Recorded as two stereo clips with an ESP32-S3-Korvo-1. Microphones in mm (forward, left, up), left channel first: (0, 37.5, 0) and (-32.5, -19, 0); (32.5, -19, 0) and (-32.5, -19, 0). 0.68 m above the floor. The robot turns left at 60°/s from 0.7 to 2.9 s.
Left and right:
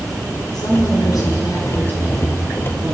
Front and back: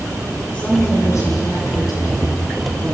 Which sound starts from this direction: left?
A woman speaking, at 0.5 s.